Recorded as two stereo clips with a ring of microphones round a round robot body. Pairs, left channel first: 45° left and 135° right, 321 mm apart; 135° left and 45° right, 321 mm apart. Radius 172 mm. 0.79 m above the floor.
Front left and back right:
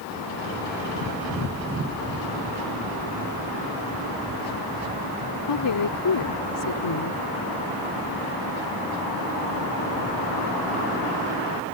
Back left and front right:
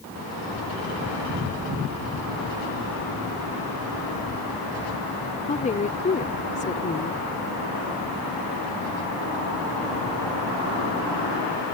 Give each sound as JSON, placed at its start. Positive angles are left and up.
{"t": 5.5, "sound": "a woman speaking", "azimuth_deg": 70}